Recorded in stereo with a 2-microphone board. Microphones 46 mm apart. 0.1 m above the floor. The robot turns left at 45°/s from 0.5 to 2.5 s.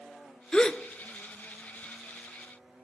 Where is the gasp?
20° left (ahead or behind), 0.5 m; by 2.8 s 25° right (ahead or behind), 0.5 m.